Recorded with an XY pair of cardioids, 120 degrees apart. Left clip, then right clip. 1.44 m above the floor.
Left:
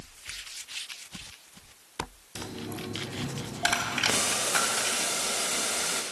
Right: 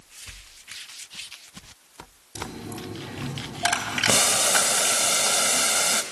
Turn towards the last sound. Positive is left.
turn(degrees=-50)